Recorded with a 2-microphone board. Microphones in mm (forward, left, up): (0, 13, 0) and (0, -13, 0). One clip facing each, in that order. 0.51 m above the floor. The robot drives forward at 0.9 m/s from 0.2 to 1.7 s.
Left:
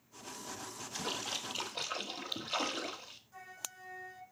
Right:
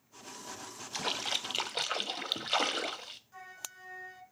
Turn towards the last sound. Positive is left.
turn(degrees=-25)  # may be behind; listen again after turning